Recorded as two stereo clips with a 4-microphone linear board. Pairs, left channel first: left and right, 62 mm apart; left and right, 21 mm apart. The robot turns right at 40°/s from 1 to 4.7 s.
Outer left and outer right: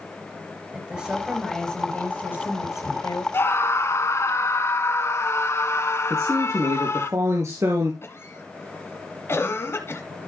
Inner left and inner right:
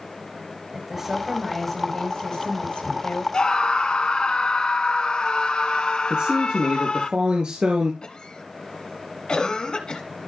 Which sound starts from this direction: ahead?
A woman speaking, at 0.7 s.